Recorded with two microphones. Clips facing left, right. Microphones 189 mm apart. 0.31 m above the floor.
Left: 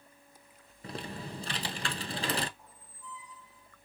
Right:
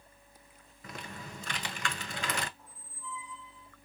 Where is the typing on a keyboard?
35° left (ahead or behind), 0.6 m.